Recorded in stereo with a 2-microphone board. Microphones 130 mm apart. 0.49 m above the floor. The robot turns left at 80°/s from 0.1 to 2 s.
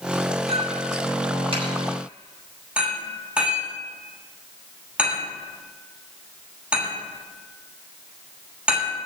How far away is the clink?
About 7 m.